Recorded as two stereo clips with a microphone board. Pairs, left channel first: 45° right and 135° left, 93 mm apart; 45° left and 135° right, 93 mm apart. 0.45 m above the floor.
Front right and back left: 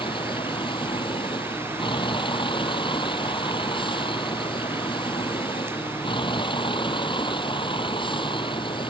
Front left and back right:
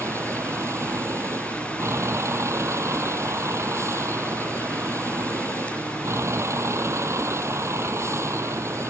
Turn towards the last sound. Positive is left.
turn(degrees=-75)